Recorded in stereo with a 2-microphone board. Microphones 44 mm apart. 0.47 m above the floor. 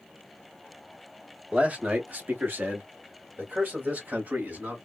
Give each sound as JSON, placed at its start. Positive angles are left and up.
{"t": 1.5, "sound": "a man speaking", "side_deg": -30, "distance_m": 1.0}